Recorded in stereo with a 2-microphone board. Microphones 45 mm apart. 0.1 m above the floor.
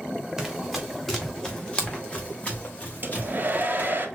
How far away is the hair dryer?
About 1.4 m.